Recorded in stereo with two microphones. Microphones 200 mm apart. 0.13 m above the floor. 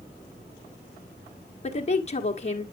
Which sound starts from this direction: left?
A woman speaking, at 1.6 s.